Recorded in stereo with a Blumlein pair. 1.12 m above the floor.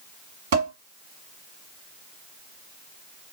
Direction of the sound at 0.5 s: 45° right.